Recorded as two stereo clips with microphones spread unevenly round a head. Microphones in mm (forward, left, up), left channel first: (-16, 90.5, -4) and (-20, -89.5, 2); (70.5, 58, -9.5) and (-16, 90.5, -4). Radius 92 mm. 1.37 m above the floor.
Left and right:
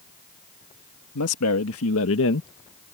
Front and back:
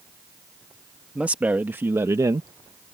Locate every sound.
1.1 s a man speaking: 80° left; by 2.5 s 110° left